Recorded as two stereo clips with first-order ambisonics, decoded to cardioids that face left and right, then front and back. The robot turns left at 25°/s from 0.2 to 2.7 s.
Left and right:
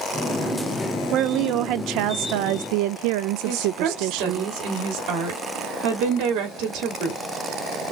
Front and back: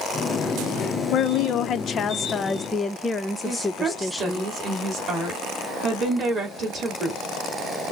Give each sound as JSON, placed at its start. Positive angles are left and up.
{"t": 1.1, "sound": "a woman speaking", "azimuth_deg": -40, "distance_m": 0.6}
{"t": 3.5, "sound": "a woman speaking", "azimuth_deg": -115, "distance_m": 2.0}